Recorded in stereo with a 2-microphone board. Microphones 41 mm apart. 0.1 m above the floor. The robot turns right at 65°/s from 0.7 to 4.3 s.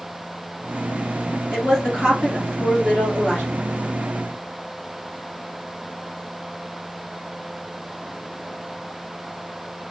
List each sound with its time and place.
1.5 s a woman speaking: 25° right, 1.9 m; by 3.5 s 100° left, 1.9 m